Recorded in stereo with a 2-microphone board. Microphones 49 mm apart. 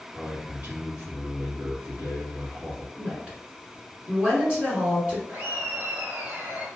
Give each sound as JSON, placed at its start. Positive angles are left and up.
{"t": 0.1, "sound": "a man speaking", "side_deg": -35, "distance_m": 1.9}
{"t": 3.0, "sound": "a woman speaking", "side_deg": -25, "distance_m": 1.5}
{"t": 5.3, "sound": "laughter", "side_deg": -40, "distance_m": 1.9}